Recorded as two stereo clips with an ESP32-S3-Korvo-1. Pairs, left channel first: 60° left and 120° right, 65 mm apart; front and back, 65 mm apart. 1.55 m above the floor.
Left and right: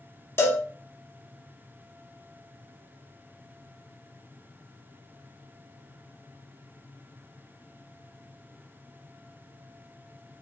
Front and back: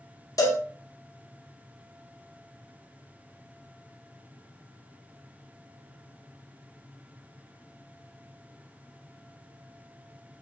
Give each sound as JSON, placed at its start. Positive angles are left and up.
{"t": 0.4, "sound": "a cowbell", "azimuth_deg": 15, "distance_m": 0.7}